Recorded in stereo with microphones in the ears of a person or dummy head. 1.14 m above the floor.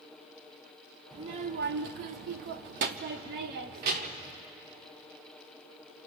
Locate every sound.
1.1 s a child speaking: 20° right (ahead or behind), 0.7 m; by 4.3 s 45° right (ahead or behind), 1.6 m